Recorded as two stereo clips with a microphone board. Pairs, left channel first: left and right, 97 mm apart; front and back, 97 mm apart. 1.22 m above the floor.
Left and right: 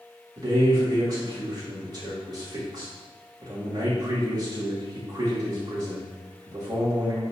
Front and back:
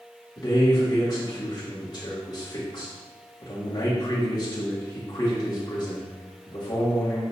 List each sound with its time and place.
0.4 s a man speaking: 45° right, 2.5 m